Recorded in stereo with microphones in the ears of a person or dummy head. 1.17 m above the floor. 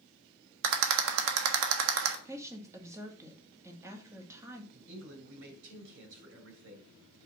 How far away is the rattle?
About 1.3 m.